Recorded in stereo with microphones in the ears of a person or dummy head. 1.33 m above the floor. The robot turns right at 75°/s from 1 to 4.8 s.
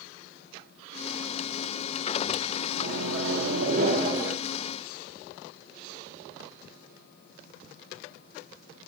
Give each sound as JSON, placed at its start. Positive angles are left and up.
{"t": 2.8, "sound": "a microwave", "azimuth_deg": -130, "distance_m": 1.0}